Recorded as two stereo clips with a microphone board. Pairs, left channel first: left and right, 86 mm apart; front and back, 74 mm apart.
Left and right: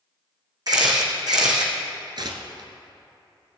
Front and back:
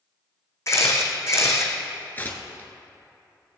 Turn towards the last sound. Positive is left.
turn(degrees=-65)